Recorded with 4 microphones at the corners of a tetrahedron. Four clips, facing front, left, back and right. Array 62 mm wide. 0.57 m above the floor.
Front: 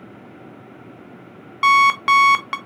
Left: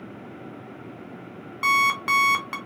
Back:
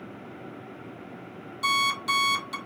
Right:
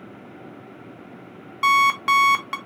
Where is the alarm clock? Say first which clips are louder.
Right 3 dB, front 12 dB; 5° right, 0.7 m.